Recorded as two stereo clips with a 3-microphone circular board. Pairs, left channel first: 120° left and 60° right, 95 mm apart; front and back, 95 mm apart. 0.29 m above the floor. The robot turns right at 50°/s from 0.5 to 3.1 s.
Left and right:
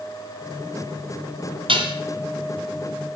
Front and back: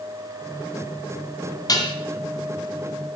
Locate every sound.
1.7 s dishes clattering: 45° right, 1.8 m; by 1.9 s 30° right, 1.8 m